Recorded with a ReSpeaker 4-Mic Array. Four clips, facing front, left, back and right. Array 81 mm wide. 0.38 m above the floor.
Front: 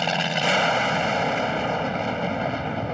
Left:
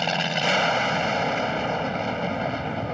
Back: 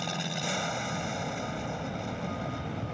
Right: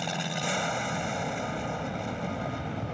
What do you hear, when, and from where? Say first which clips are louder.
0.0 s an aircraft: left 7 dB, front 10 dB; 35° left